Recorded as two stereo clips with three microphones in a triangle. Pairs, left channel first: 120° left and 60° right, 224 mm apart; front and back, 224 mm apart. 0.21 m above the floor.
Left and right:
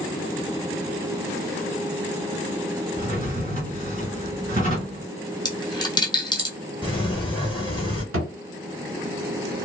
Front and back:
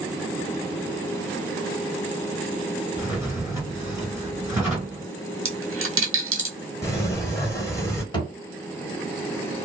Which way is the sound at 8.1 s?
70° right.